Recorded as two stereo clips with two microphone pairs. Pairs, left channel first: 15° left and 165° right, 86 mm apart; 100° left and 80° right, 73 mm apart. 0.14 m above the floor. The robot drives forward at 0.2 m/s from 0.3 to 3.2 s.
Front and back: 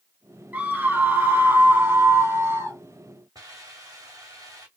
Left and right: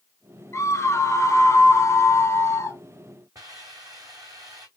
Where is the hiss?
115° right, 2.5 m.